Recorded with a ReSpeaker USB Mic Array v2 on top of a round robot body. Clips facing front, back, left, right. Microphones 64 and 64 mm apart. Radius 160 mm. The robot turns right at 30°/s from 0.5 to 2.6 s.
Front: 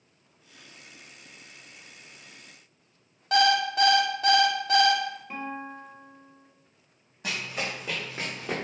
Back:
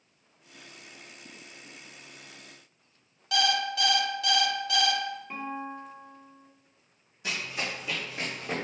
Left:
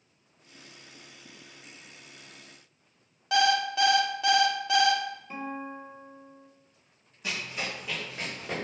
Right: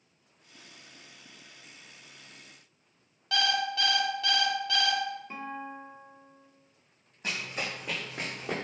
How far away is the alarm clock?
About 0.7 m.